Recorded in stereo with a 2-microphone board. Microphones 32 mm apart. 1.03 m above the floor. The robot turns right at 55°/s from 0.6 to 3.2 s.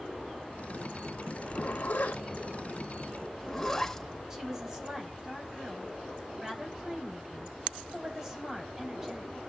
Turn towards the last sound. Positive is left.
turn(degrees=-15)  # may be behind; listen again after turning